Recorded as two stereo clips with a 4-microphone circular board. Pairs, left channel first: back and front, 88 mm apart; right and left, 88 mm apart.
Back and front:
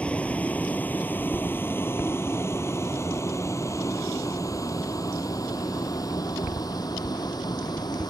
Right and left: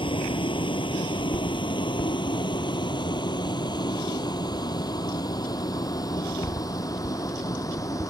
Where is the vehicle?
105° right; by 8.1 s 140° right.